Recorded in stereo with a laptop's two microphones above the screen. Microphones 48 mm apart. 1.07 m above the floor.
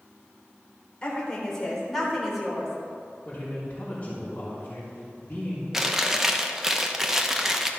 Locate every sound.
1.0 s a woman speaking: 25° left (ahead or behind), 3.5 m; by 2.7 s 15° right (ahead or behind), 4 m
3.2 s a man speaking: 30° left (ahead or behind), 4 m
5.7 s chewing: 5° right (ahead or behind), 0.9 m